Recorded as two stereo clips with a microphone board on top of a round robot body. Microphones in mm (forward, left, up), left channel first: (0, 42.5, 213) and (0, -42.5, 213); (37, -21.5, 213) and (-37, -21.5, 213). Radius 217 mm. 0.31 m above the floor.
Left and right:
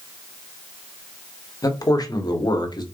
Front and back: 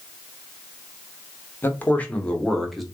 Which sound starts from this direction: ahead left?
A man speaking, at 1.6 s.